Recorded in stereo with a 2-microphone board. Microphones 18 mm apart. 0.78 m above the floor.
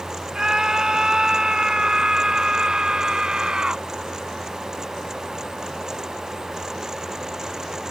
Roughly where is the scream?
Right.